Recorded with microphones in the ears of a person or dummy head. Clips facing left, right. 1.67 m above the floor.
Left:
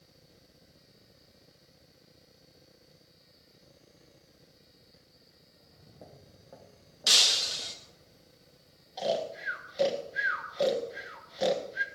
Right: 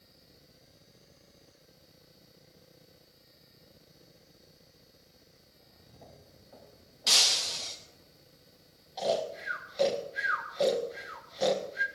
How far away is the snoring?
About 1.9 m.